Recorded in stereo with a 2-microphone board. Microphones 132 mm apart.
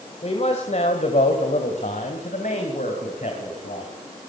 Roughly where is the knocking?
I don't hear knocking.